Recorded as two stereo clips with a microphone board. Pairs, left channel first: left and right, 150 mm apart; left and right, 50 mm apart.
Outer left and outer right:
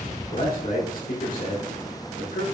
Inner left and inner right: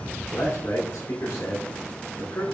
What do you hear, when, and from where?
0.3 s a man speaking: 65° left (ahead or behind), 2 m